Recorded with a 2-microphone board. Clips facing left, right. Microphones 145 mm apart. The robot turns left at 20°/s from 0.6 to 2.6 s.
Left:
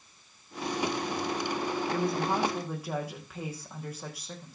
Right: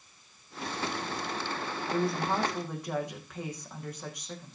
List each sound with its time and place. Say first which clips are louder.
1.9 s a woman speaking: right 2 dB; 10° right (ahead or behind), 6.5 m; by 4.5 s 5° left (ahead or behind), 6.5 m